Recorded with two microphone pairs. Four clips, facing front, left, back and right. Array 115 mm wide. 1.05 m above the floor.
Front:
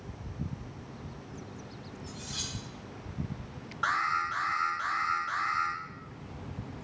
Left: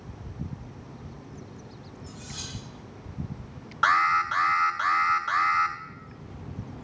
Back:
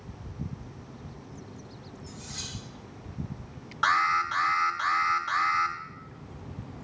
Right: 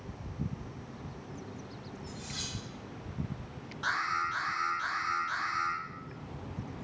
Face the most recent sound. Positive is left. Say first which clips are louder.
# left 10 dB, back 5 dB
turn(degrees=120)